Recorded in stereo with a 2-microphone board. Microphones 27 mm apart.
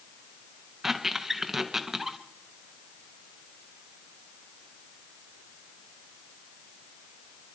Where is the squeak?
10° right (ahead or behind), 1.1 m.